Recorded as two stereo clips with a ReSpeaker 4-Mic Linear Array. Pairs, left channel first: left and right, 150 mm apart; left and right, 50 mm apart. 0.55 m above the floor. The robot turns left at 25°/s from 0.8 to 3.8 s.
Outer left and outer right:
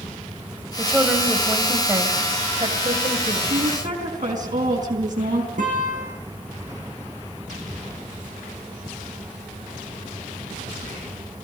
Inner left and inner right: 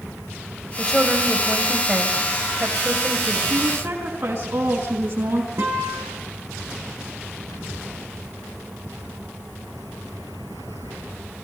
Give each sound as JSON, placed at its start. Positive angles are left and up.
{"t": 0.8, "sound": "a woman speaking", "azimuth_deg": 5, "distance_m": 3.0}
{"t": 3.5, "sound": "a woman speaking", "side_deg": -70, "distance_m": 4.5}
{"t": 5.6, "sound": "a guitar", "side_deg": -60, "distance_m": 9.0}